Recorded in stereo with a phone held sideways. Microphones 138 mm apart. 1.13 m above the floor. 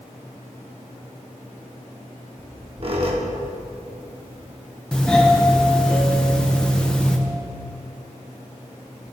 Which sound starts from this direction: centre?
A doorbell, at 4.9 s.